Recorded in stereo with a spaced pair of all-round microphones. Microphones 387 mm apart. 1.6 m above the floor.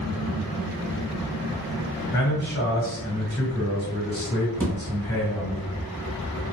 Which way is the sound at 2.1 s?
25° left (ahead or behind).